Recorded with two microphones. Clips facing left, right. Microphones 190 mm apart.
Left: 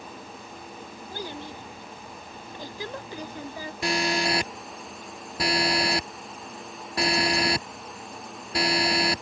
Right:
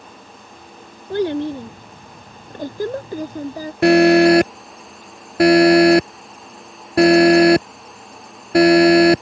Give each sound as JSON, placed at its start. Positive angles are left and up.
{"t": 1.1, "sound": "a child speaking", "side_deg": -75}
{"t": 3.8, "sound": "an alarm", "side_deg": -70}